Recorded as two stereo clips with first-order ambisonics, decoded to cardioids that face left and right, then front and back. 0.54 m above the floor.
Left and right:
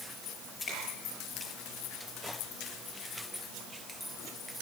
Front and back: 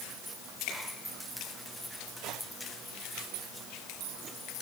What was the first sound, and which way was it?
A finger snap, 25° left.